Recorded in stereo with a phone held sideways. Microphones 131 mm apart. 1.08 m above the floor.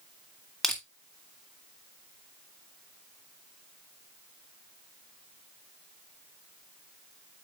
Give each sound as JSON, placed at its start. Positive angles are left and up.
{"t": 0.6, "sound": "crushing", "side_deg": 0, "distance_m": 2.5}